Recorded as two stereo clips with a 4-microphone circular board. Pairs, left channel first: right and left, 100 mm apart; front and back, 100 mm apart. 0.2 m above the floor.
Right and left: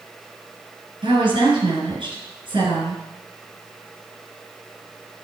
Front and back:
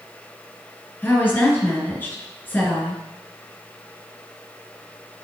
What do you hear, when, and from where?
1.0 s a woman speaking: 70° left, 3 m